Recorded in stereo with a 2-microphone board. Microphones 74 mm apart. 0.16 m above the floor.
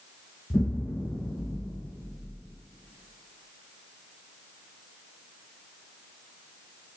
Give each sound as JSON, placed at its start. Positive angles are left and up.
{"t": 0.5, "sound": "an explosion", "side_deg": 40, "distance_m": 1.0}